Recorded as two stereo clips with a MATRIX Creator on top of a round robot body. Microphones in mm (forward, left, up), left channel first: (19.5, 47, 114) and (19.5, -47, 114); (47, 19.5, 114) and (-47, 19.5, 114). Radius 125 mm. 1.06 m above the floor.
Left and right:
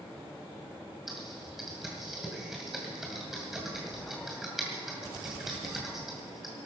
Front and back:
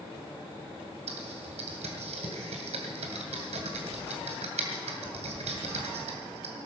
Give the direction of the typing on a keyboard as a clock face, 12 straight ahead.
6 o'clock.